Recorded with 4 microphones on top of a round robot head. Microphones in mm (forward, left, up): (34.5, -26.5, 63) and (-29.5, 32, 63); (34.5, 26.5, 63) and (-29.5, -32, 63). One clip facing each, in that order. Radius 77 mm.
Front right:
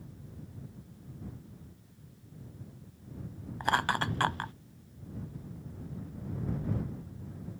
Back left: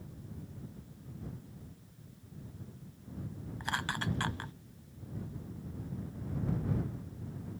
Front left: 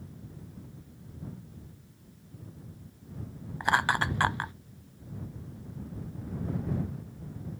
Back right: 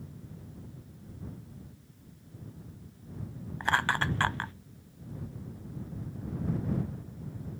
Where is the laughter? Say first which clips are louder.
Front right 8 dB, front left 2 dB; 30° right.